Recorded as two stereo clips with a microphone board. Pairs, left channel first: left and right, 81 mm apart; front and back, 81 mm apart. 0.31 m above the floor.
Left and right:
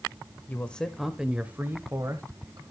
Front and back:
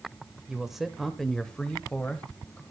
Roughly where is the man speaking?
Left.